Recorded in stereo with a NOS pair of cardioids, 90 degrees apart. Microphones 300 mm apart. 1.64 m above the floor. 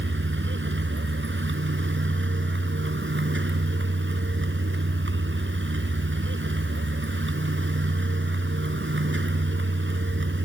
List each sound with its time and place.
0.0 s a vehicle: 40° right